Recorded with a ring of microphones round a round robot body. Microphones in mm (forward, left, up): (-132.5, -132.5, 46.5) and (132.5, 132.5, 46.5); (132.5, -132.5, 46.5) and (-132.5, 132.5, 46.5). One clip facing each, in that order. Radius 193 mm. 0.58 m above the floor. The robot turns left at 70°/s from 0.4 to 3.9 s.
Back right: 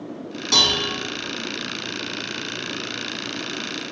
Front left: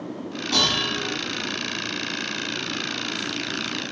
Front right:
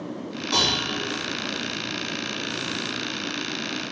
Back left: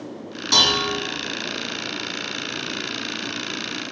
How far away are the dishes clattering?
About 3 m.